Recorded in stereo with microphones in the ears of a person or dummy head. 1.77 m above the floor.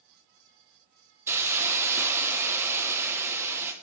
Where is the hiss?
10° right (ahead or behind), 1.2 m.